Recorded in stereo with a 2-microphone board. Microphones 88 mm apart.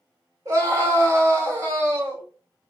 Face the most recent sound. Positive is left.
turn(degrees=-40)  # may be behind; listen again after turning